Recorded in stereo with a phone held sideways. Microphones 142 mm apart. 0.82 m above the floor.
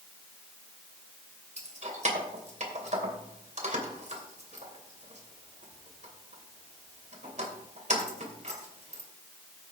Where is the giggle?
No giggle in this recording.